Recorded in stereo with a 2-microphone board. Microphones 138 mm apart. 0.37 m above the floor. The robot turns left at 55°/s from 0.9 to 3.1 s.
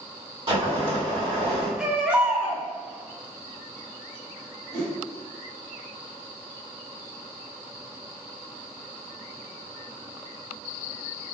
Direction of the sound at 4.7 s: 50° left (ahead or behind).